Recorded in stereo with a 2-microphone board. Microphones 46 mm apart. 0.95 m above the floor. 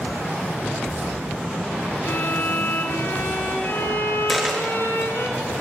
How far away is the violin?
About 4.5 m.